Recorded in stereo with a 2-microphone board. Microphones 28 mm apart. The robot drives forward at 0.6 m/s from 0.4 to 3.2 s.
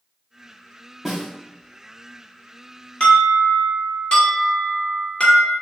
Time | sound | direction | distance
1.1 | a snare drum | centre (ahead or behind) | 1.2 m
3.0 | an alarm | 35° left (ahead or behind) | 1.6 m